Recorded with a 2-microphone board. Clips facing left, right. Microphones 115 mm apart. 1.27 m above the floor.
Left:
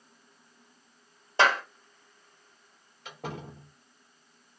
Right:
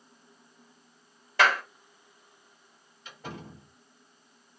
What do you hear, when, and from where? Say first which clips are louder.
1.4 s a clap: even; 25° left (ahead or behind), 1.2 m
3.0 s a door slam: left 3 dB; 75° left (ahead or behind), 2.5 m